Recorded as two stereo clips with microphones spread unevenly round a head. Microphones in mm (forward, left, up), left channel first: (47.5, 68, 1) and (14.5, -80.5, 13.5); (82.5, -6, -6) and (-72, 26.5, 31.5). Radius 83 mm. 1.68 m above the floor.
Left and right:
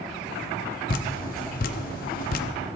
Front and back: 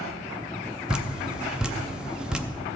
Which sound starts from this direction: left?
Dripping, at 0.9 s.